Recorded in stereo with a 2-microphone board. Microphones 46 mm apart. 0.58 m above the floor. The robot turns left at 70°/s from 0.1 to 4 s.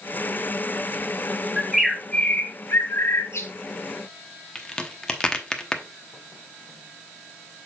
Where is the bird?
155° right, 1.2 m; by 3.5 s 70° left, 1.2 m.